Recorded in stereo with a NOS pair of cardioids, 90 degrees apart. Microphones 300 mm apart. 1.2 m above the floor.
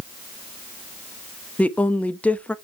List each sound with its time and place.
1.6 s a woman speaking: 5° left, 1.0 m